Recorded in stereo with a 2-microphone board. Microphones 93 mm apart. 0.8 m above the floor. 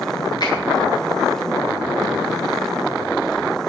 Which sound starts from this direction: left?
A finger snap, at 0.4 s.